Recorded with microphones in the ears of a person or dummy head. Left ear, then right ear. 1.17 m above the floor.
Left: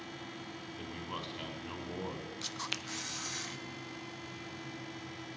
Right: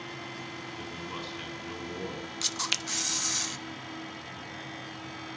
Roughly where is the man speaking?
Centre.